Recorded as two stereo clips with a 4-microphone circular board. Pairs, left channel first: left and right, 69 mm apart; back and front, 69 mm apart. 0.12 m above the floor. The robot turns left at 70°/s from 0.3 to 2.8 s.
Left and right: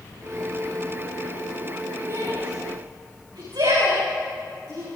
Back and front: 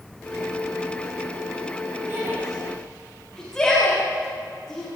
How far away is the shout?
About 10 m.